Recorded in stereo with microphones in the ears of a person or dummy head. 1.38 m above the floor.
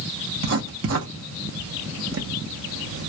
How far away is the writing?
About 0.7 m.